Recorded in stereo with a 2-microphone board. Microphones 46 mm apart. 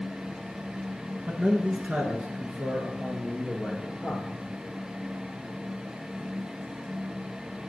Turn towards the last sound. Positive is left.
turn(degrees=-10)  # may be behind; listen again after turning